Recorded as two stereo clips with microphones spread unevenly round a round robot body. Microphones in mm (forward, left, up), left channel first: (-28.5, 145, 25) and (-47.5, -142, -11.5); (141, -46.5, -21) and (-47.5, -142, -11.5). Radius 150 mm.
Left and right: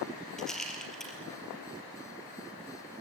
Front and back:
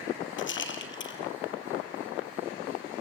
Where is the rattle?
Straight ahead, 3.5 m.